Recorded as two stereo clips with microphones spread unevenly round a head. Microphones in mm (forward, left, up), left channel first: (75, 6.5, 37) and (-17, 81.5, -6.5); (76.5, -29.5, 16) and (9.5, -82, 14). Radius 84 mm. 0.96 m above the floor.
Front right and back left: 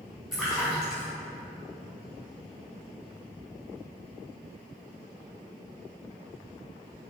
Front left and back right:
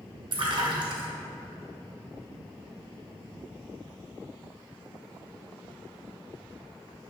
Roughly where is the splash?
Behind right.